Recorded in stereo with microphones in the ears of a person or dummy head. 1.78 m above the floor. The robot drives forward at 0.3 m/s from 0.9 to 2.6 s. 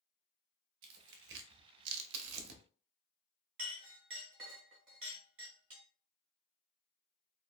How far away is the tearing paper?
About 0.6 m.